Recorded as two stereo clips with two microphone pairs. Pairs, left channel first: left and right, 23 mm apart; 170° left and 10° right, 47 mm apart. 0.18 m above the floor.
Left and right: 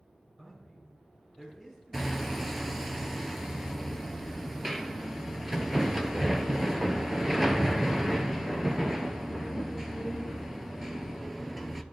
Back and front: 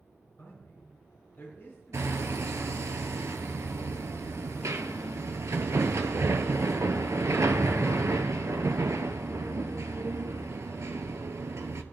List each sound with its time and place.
0.4 s a man speaking: 170° right, 3 m
1.9 s hammering: 5° right, 0.8 m